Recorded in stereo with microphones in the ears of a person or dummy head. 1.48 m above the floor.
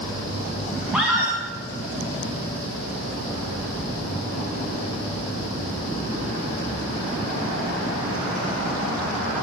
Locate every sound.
0.9 s a scream: 5° right (ahead or behind), 1.6 m